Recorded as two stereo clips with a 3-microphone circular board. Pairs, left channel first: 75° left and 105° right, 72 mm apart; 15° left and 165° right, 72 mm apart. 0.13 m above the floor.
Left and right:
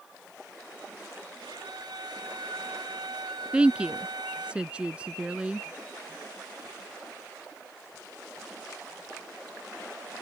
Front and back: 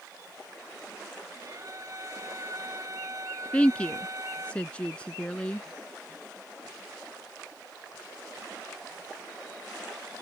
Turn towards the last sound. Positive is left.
turn(degrees=-45)